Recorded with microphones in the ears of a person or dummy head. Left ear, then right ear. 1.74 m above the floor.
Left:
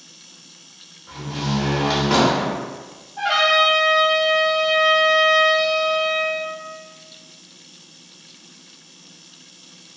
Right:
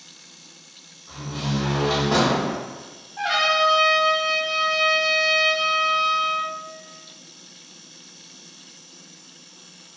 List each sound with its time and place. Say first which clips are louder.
1.1 s a door slam: left 3 dB; 50° left (ahead or behind), 0.9 m
3.2 s a trumpet: left 3 dB; 5° right (ahead or behind), 0.7 m